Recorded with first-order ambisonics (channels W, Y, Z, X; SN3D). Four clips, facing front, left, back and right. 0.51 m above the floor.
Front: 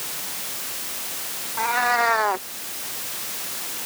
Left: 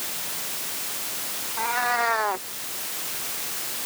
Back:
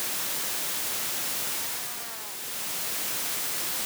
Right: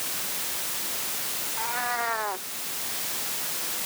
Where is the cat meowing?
20° left.